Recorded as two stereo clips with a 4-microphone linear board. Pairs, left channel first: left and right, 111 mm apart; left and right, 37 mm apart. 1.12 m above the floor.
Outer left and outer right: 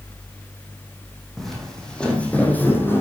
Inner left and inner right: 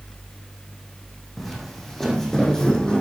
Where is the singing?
No singing in this recording.